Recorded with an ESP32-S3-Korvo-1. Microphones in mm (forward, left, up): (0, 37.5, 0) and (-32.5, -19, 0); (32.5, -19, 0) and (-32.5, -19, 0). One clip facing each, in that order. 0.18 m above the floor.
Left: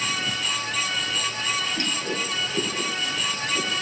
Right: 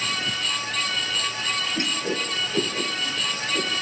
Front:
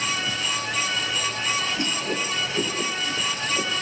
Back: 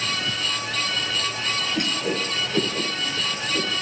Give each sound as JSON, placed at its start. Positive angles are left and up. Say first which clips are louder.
{"t": 1.8, "sound": "a whoosh", "louder": "right 1 dB, back 1 dB", "azimuth_deg": 175, "distance_m": 7.0}